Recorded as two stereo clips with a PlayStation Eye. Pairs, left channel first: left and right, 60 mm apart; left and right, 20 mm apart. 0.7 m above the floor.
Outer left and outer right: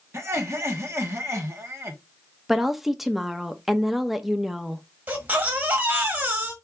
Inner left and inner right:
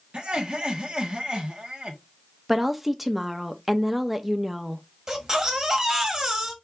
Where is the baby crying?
25° right (ahead or behind), 1.4 m.